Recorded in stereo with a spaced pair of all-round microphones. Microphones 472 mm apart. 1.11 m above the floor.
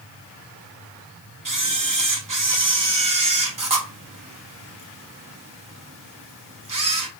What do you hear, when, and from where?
1.4 s a camera shutter: 45° right (ahead or behind), 0.8 m